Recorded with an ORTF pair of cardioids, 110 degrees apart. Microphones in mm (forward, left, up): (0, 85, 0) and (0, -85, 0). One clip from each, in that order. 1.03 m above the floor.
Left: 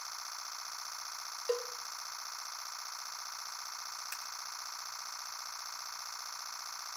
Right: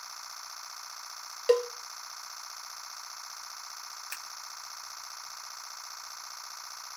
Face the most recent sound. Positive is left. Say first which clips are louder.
# right 2 dB
turn(degrees=-30)